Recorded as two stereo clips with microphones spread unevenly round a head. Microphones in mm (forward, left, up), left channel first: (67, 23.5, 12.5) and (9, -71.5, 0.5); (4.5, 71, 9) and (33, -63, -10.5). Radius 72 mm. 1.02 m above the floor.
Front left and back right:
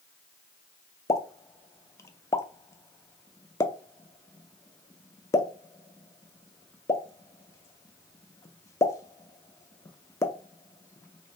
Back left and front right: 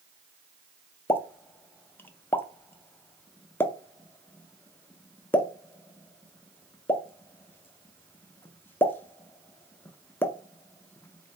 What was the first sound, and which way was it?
A pop, 60° left.